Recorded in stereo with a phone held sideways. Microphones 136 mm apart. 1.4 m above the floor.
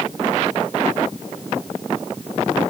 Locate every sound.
Only background noise.